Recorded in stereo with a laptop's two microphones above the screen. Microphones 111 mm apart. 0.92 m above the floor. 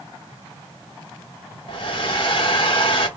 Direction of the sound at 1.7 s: 50° left (ahead or behind).